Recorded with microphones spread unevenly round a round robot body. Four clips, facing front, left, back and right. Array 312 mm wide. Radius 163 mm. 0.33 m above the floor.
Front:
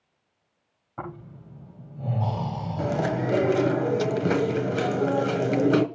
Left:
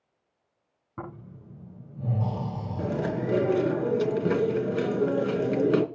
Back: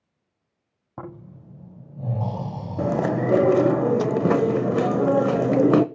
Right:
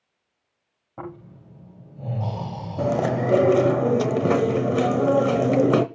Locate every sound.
1.0 s snoring: 175° left, 8 m
2.8 s chewing: 125° right, 0.9 m